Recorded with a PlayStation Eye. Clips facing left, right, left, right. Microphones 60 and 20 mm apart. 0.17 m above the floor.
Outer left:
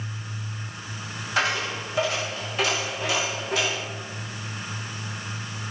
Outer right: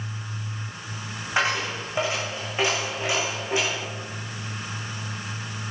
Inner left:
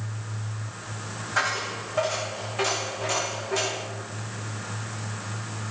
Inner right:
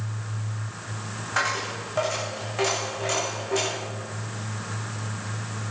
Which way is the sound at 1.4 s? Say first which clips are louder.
Outer right 1 dB, even; 25° right (ahead or behind).